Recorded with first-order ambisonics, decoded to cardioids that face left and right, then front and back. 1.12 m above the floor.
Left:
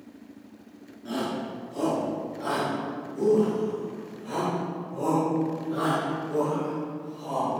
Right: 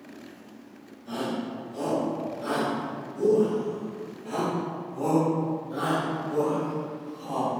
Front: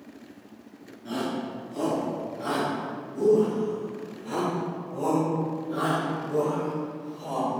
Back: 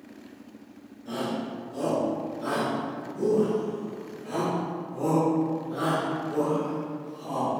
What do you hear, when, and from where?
1.1 s a shout: 50° left, 3 m; by 7.6 s 20° left, 6.5 m